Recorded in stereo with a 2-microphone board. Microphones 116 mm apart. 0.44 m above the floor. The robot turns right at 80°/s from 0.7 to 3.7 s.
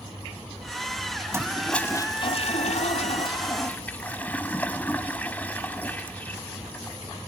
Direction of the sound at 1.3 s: 25° right.